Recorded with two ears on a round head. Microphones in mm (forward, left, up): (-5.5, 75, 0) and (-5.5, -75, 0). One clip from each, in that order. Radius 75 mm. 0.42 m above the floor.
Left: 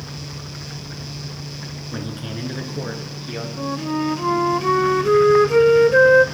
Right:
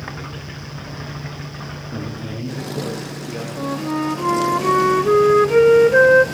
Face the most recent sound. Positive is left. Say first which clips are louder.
# right 1 dB
turn(degrees=0)  # may be behind; listen again after turning